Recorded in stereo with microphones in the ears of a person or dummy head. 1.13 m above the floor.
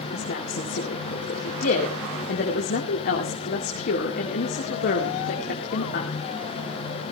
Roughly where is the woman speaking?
Left.